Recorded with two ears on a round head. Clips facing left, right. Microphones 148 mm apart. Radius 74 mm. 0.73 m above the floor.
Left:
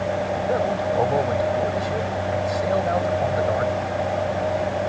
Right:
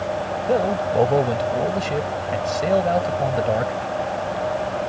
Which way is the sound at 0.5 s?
30° right (ahead or behind).